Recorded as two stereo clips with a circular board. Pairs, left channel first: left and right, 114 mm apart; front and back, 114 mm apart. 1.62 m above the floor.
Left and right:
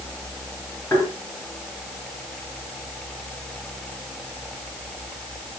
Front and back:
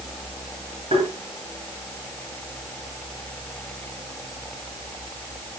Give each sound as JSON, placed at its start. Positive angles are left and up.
{"t": 0.9, "sound": "tapping", "azimuth_deg": 165, "distance_m": 8.0}